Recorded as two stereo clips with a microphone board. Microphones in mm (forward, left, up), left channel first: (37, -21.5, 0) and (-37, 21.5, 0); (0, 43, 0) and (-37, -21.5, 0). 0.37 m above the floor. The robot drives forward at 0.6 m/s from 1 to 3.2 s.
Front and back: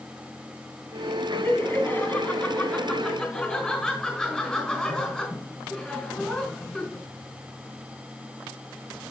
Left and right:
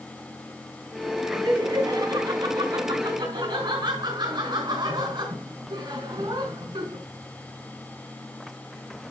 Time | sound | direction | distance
1.3 | laughter | 95° right | 3.5 m